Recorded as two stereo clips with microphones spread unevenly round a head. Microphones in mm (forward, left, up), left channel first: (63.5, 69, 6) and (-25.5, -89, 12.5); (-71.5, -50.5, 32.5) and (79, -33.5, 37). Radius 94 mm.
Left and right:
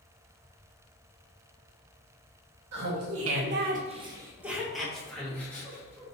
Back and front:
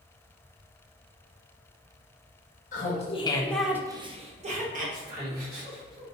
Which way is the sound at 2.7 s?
140° right.